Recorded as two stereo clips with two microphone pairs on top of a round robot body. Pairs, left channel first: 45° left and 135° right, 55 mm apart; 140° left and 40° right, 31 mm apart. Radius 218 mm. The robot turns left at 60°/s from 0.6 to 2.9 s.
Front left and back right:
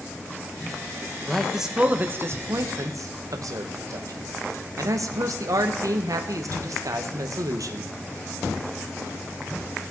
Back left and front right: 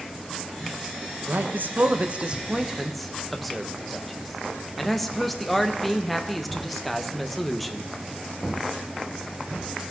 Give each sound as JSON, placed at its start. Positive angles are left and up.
{"t": 1.3, "sound": "a man speaking", "azimuth_deg": -35, "distance_m": 1.3}